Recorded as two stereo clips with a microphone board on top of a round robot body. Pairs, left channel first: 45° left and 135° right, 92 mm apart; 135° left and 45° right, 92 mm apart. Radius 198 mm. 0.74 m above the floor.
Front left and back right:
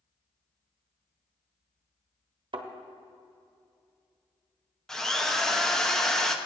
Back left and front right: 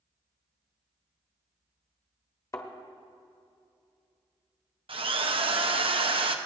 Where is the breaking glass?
No breaking glass in this recording.